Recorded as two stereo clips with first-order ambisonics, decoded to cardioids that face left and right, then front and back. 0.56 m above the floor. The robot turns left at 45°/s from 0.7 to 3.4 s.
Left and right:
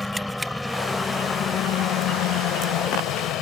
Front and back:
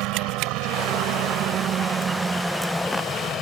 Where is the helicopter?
175° left; by 3.4 s 55° left.